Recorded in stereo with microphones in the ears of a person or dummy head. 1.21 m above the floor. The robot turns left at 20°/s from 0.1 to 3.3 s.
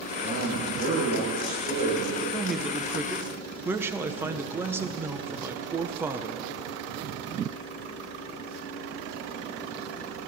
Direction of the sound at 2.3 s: 5° left (ahead or behind).